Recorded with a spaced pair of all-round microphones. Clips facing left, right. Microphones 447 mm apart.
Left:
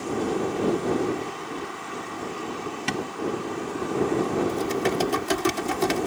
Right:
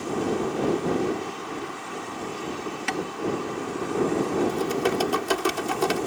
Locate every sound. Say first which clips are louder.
2.9 s tapping: left 1 dB; 50° left (ahead or behind)
4.5 s typing on a keyboard: even; 35° left (ahead or behind)